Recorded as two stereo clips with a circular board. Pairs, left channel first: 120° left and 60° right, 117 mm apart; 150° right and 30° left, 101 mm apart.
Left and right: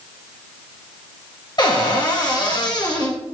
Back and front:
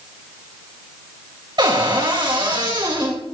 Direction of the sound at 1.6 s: 70° left.